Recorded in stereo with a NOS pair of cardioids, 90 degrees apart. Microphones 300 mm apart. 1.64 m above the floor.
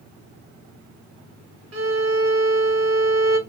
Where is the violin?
60° right, 0.9 m.